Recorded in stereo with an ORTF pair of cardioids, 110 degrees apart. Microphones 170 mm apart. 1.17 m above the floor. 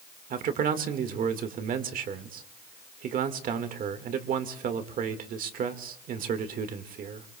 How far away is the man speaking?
About 1.7 m.